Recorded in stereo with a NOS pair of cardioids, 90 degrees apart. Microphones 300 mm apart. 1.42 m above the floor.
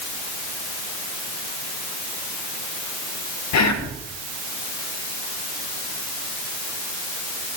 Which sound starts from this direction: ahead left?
Whispering, at 3.5 s.